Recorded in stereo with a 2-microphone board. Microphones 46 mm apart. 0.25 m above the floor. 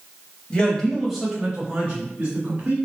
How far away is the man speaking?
About 1.0 m.